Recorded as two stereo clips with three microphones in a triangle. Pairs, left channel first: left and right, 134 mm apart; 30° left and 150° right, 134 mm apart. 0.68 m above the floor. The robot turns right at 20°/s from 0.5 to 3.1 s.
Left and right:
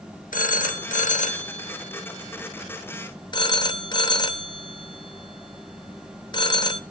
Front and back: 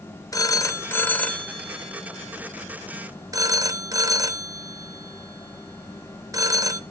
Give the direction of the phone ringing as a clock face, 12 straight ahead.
9 o'clock.